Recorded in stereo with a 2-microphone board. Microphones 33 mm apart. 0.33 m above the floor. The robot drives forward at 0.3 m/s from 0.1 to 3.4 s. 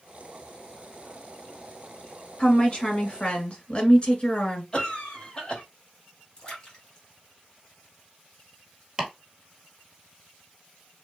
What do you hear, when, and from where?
2.4 s a woman speaking: 35° left (ahead or behind), 1.1 m
4.7 s a cough: 25° left (ahead or behind), 1.1 m
6.4 s a splash: 25° left (ahead or behind), 1.6 m
9.0 s chopping: 10° right (ahead or behind), 1.4 m